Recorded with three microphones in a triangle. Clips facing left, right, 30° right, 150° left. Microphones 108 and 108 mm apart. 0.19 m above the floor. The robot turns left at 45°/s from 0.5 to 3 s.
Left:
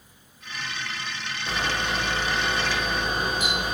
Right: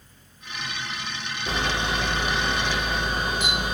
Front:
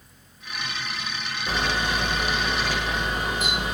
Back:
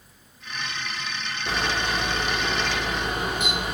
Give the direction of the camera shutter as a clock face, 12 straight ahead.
5 o'clock.